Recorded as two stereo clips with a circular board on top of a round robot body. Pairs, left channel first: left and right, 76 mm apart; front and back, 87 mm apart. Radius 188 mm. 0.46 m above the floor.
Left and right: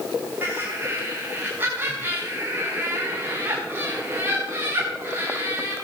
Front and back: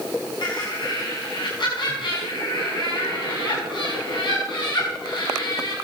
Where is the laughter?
30° right, 4.5 m.